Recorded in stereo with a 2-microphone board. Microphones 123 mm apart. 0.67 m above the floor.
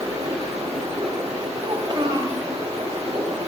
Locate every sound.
0.0 s running water: 65° right (ahead or behind), 5 m
1.6 s a child speaking: 45° right (ahead or behind), 1.7 m